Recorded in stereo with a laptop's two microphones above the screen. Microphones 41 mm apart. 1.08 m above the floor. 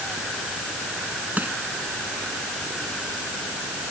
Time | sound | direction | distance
1.4 | crushing | 40° right (ahead or behind) | ?